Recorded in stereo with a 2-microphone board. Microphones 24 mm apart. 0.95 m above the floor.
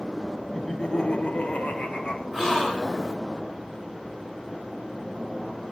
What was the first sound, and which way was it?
Laughter, 15° left (ahead or behind).